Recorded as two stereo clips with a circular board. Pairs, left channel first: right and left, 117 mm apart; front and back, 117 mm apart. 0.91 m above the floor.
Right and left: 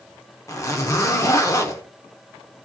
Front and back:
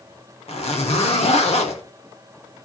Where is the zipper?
30° right, 1.2 m.